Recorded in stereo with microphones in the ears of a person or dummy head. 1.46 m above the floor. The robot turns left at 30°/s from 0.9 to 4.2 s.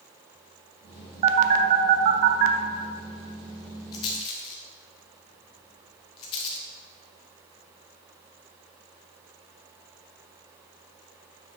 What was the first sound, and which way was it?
A phone buzzing, 40° right (ahead or behind).